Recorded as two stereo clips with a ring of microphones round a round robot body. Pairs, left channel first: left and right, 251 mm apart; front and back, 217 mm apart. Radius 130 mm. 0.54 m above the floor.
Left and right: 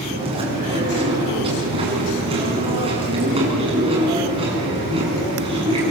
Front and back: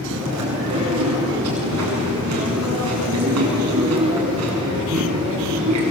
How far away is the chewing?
About 7 m.